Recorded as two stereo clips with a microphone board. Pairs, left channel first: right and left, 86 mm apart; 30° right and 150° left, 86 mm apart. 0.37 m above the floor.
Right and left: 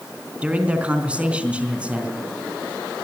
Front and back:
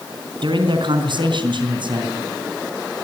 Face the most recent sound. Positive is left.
turn(degrees=165)